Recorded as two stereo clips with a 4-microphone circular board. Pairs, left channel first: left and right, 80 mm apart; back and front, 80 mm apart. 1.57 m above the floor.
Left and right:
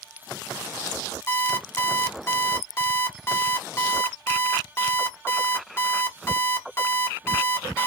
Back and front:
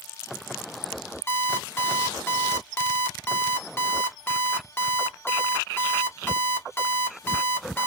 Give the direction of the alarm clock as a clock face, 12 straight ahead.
8 o'clock.